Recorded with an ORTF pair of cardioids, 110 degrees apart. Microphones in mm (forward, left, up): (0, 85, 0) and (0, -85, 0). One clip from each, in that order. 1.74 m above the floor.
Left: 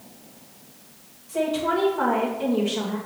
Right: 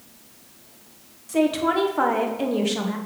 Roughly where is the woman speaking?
Ahead right.